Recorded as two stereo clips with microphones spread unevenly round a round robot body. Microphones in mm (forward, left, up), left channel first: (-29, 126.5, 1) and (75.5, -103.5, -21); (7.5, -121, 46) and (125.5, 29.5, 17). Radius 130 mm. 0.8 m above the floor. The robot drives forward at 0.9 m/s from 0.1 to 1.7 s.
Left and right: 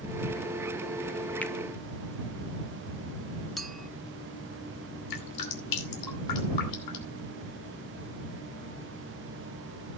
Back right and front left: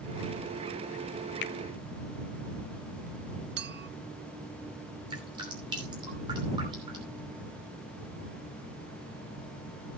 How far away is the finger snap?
About 0.6 m.